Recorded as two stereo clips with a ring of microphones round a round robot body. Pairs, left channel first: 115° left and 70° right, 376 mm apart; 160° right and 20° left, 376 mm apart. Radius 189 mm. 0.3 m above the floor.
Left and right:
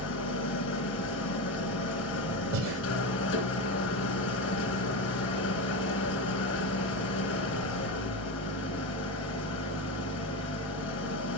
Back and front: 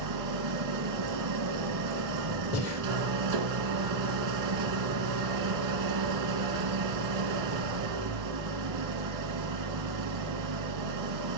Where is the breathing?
110° right, 2.5 m.